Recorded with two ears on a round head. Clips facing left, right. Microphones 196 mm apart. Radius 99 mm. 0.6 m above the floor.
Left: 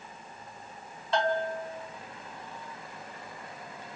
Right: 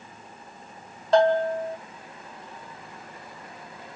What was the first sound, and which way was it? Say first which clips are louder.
A bell: right 9 dB; 35° right (ahead or behind).